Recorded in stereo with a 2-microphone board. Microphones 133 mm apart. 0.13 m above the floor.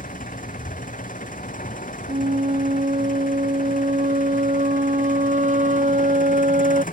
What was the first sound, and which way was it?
An engine running, 70° left (ahead or behind).